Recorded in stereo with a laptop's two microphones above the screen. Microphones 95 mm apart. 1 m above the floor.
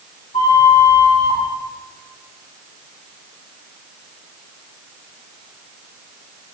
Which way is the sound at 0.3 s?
80° left.